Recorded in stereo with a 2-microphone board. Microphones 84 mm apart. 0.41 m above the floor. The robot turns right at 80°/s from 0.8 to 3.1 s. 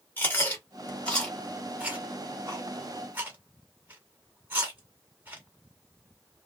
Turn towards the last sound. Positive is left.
turn(degrees=-20)  # may be behind; listen again after turning